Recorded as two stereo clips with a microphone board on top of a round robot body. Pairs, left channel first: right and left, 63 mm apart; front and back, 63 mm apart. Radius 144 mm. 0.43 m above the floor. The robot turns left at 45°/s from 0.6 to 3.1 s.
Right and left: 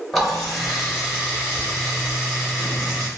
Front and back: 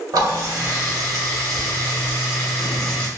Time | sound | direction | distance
0.1 | a running tap | straight behind | 1.7 m